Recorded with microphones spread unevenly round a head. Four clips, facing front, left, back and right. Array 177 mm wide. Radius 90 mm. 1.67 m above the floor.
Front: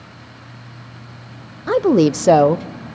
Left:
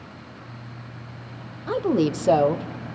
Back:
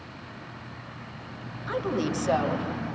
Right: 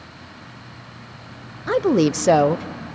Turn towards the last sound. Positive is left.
turn(degrees=-15)